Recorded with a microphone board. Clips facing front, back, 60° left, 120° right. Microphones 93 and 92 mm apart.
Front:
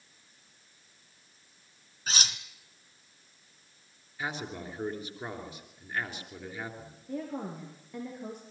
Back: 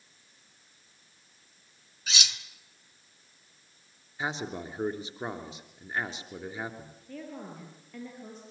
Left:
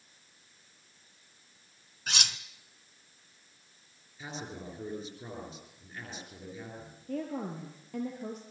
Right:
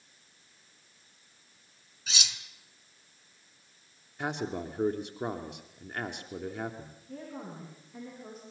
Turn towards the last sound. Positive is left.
turn(degrees=70)